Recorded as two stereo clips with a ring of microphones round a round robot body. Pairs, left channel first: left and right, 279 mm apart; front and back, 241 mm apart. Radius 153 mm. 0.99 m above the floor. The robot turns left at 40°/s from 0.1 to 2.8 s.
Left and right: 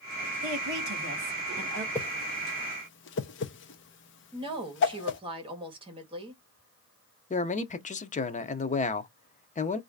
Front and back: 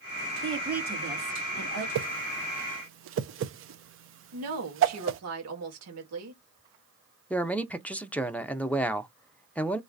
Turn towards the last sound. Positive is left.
turn(degrees=75)